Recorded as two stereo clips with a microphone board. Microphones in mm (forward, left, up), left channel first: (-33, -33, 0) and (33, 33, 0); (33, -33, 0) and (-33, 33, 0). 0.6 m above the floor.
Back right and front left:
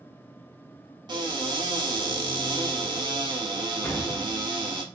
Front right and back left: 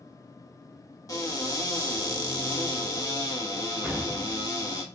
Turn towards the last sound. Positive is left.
turn(degrees=-170)